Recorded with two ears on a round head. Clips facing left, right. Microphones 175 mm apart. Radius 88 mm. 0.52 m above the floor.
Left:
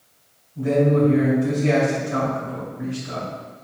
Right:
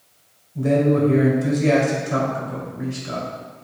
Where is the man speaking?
55° right (ahead or behind), 1.8 m.